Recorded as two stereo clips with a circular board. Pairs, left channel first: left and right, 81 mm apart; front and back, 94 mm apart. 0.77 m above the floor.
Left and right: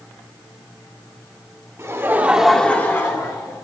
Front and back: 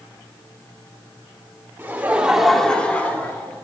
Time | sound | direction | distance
1.8 | laughter | 120° right | 1.5 m